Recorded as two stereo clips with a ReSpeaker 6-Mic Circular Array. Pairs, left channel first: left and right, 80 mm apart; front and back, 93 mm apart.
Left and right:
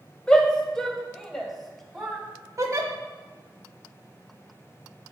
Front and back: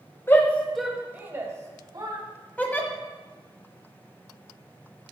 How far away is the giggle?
About 1.4 m.